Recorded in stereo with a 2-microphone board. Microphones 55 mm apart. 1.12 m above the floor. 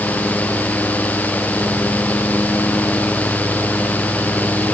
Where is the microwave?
No microwave in this recording.